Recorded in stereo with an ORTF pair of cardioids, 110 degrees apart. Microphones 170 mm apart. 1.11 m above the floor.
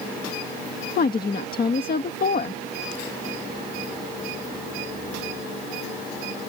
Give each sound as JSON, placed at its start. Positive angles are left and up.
{"t": 1.0, "sound": "a woman speaking", "azimuth_deg": 60}